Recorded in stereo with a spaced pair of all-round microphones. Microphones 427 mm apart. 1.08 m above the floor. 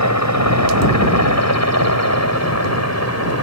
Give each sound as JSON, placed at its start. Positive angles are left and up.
{"t": 0.0, "sound": "a helicopter", "side_deg": 40}